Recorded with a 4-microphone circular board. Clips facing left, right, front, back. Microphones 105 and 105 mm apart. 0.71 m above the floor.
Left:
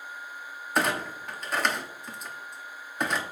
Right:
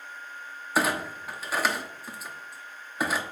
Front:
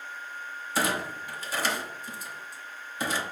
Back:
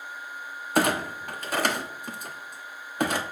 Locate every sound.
0.8 s a clunk: 175° right, 0.9 m